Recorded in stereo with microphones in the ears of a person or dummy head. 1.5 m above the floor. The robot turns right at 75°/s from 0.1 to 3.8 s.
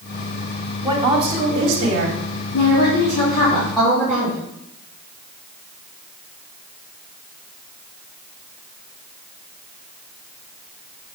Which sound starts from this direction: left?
A woman speaking, at 2.5 s.